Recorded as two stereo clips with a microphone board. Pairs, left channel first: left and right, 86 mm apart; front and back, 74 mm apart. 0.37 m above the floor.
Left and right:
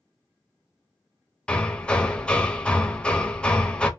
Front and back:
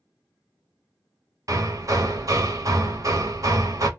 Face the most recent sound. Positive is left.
turn(degrees=165)